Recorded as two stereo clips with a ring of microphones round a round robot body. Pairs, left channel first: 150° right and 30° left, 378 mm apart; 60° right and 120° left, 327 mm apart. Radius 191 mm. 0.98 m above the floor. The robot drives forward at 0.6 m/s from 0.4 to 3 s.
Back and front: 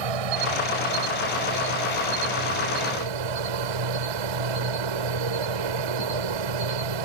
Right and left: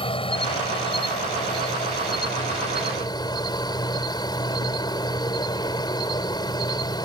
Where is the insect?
15° left; by 7.1 s 20° left.